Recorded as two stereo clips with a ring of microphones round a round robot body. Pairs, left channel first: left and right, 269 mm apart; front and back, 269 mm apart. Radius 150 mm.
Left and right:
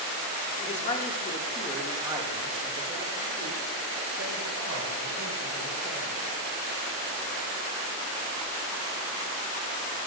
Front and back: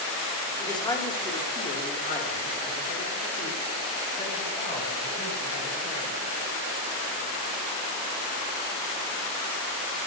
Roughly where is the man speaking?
Ahead left.